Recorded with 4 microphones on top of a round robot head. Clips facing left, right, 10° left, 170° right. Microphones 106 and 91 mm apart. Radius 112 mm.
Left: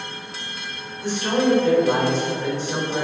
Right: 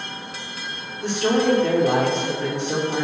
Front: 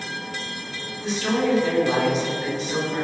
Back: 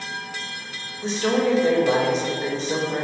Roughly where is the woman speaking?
Right.